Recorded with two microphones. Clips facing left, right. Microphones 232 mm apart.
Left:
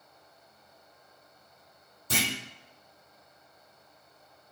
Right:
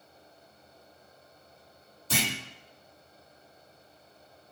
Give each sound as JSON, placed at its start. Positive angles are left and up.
{"t": 2.1, "sound": "a clunk", "side_deg": 55, "distance_m": 1.8}